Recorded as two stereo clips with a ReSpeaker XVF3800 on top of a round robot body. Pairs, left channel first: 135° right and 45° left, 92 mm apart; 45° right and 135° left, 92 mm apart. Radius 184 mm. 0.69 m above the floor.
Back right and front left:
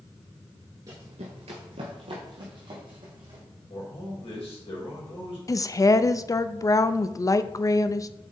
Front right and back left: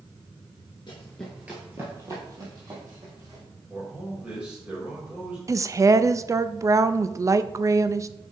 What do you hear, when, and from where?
0.9 s running footsteps: 5° right, 0.8 m; by 3.4 s 85° left, 3 m
3.7 s a man speaking: 145° right, 3.5 m
5.5 s a woman speaking: straight behind, 0.6 m